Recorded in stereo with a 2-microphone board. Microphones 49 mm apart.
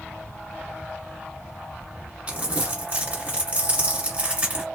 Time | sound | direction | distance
2.3 | crumpling | 25° right (ahead or behind) | 1.7 m